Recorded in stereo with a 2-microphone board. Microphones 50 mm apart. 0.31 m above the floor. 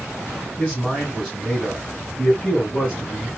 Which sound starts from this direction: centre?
A man speaking, at 0.6 s.